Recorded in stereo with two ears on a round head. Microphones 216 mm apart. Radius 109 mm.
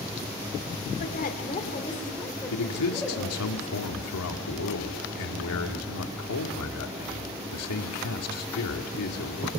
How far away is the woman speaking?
About 2.5 m.